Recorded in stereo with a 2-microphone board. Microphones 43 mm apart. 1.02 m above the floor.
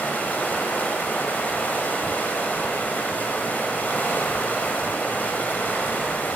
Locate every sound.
0.0 s running water: 45° left (ahead or behind), 1.2 m